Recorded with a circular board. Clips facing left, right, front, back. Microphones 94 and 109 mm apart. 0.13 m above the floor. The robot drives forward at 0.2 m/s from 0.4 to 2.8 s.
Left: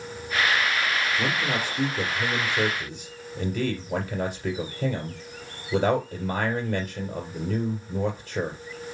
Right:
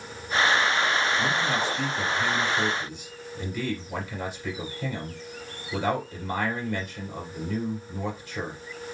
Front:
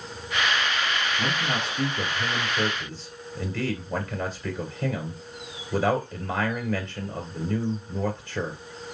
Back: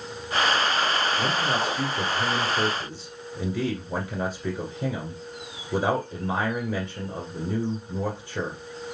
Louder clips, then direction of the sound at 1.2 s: Right 1 dB, back 3 dB; 110° left.